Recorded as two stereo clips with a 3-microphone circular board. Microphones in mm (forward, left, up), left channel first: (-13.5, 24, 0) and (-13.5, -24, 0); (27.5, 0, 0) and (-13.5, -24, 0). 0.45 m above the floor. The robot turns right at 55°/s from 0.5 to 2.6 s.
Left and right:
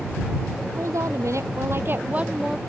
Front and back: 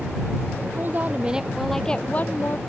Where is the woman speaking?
105° right; by 2.6 s 5° right.